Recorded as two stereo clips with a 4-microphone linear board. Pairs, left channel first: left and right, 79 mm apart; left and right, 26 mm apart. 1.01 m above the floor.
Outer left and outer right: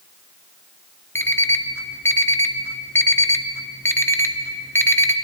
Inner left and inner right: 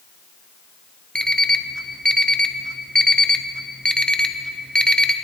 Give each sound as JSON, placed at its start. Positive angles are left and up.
{"t": 1.1, "sound": "an alarm clock", "side_deg": 30, "distance_m": 0.7}